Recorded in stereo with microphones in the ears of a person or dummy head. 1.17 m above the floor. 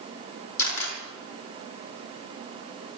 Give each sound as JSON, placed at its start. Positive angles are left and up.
{"t": 0.6, "sound": "a camera shutter", "side_deg": 80, "distance_m": 6.0}